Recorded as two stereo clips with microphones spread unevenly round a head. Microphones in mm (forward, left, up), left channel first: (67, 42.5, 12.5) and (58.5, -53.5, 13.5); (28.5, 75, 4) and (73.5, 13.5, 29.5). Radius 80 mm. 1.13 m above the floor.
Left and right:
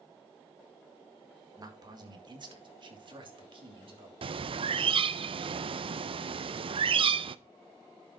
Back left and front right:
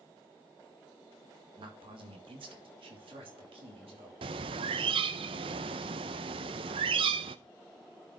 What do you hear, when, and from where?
1.6 s a man speaking: 50° right, 2.0 m; by 4.1 s 75° right, 3.5 m
4.2 s a bird: 65° right, 0.5 m